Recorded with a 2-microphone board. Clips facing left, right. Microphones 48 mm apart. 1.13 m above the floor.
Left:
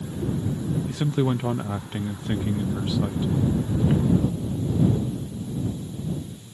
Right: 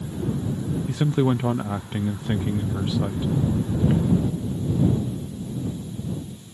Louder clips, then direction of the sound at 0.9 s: Right 4 dB; 10° right (ahead or behind).